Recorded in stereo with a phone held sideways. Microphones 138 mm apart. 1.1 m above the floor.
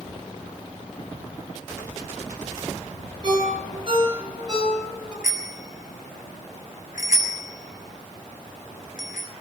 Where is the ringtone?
35° right (ahead or behind), 9.5 m.